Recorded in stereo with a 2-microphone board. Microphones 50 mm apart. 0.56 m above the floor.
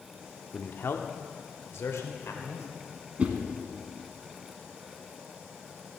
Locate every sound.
0.5 s a man speaking: 40° left (ahead or behind), 0.7 m; by 2.7 s 70° left (ahead or behind), 1.8 m
3.2 s a whoosh: 30° right (ahead or behind), 1.2 m